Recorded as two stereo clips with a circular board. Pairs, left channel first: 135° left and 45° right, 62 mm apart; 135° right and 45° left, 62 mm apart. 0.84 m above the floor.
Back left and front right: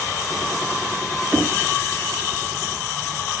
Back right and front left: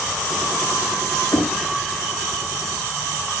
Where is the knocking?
110° right, 1.4 m.